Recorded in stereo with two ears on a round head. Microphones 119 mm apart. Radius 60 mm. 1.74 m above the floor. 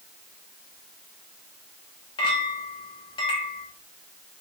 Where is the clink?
35° left (ahead or behind), 1.2 m.